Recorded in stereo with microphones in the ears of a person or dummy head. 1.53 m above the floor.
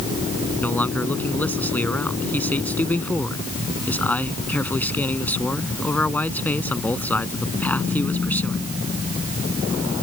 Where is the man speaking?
5° left (ahead or behind).